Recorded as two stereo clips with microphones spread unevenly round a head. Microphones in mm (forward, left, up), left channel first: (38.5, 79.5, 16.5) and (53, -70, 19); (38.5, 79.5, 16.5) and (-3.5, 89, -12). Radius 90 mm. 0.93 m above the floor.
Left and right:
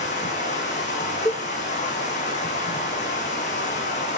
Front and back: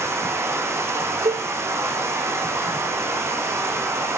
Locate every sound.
0.0 s running water: 150° left, 7 m
1.2 s a cowbell: 170° left, 0.8 m